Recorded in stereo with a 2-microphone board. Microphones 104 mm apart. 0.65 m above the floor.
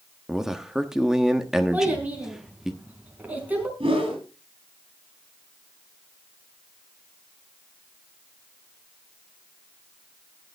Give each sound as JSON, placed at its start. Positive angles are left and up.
{"t": 0.3, "sound": "a man speaking", "side_deg": -5, "distance_m": 1.1}
{"t": 1.7, "sound": "a child speaking", "side_deg": -15, "distance_m": 4.5}
{"t": 3.8, "sound": "a whoosh", "side_deg": -60, "distance_m": 8.5}